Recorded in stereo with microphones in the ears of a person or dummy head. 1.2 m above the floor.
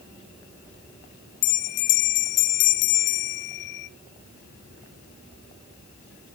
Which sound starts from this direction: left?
A bell, at 1.4 s.